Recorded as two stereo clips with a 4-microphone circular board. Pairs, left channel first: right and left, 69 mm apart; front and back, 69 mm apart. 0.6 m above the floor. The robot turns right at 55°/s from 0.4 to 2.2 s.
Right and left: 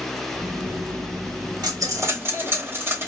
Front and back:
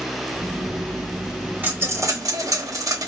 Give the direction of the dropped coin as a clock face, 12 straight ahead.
8 o'clock.